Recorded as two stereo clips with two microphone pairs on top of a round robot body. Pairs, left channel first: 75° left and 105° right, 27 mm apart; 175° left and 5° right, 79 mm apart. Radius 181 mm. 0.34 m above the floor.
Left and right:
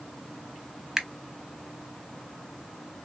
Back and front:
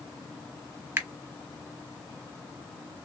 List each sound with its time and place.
1.0 s a finger snap: 40° right, 1.0 m